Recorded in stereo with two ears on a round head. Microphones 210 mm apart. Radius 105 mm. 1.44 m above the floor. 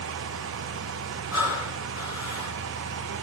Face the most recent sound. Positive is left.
turn(degrees=-10)  # may be behind; listen again after turning